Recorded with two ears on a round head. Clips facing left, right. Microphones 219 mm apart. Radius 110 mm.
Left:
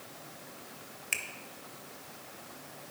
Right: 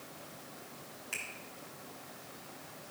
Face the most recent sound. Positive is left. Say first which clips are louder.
# left 4 dB
turn(degrees=40)  # may be behind; listen again after turning